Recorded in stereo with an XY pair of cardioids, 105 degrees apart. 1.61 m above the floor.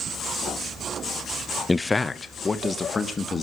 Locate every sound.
1.7 s a man speaking: 15° left, 0.8 m; by 3.4 s 30° left, 3.5 m